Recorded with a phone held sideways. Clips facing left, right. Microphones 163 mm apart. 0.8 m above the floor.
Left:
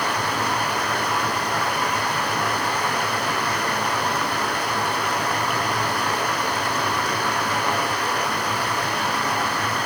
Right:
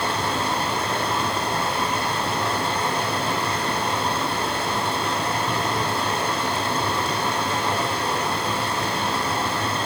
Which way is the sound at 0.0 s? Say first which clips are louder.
Even; 25° right (ahead or behind).